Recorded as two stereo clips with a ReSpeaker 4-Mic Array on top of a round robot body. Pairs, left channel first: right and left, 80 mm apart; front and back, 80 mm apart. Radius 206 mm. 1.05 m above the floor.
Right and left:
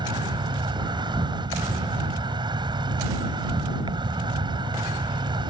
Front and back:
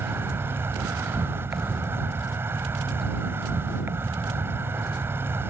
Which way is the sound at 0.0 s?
115° left.